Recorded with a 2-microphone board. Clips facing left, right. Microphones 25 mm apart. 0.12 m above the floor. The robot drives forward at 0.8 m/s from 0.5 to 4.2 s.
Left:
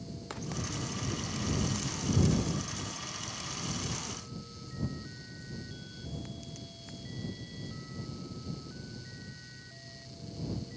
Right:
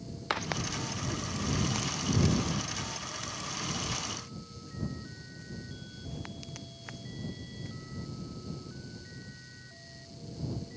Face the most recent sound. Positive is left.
turn(degrees=-40)  # may be behind; listen again after turning